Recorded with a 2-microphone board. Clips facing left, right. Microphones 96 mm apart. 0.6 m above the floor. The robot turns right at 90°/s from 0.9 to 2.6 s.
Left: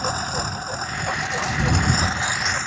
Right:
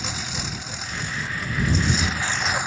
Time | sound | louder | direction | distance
0.0 | a lawn mower | left 7 dB | 40° left | ?